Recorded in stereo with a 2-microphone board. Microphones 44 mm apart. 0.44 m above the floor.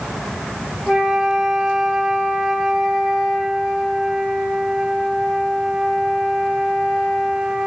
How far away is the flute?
About 1.3 m.